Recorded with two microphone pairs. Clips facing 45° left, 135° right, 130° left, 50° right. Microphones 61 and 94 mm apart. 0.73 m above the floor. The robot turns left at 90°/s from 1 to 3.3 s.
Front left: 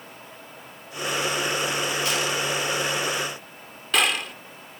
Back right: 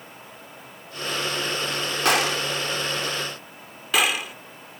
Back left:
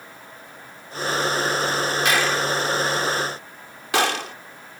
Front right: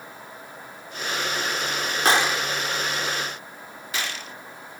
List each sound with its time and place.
2.0 s a gunshot: 105° right; by 4.3 s 140° left